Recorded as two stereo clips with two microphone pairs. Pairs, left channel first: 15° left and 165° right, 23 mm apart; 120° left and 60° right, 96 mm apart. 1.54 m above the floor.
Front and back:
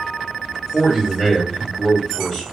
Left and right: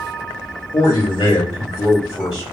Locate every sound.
0.7 s a man speaking: 115° left, 1.7 m